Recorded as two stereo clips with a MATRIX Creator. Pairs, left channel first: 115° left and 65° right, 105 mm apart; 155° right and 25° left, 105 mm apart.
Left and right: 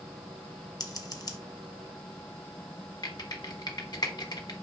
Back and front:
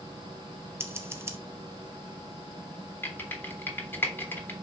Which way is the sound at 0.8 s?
80° left.